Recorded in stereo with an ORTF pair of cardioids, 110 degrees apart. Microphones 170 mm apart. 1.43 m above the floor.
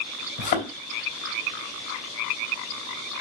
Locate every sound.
0.4 s a thud: 65° left, 3.5 m